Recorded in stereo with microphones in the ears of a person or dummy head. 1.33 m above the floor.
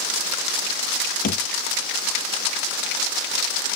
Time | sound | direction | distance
1.2 | a thud | 55° left (ahead or behind) | ?